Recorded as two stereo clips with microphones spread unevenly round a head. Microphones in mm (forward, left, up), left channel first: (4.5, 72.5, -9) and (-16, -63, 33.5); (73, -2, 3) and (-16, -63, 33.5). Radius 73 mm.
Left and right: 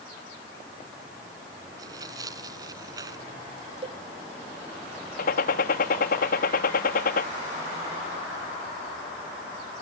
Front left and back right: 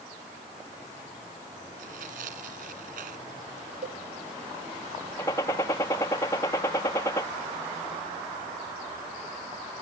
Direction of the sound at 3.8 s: 150° right.